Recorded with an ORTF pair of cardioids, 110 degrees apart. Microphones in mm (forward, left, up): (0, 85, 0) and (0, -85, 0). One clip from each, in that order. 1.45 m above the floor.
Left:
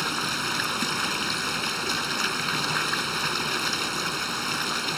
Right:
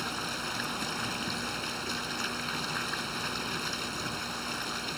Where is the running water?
50° left.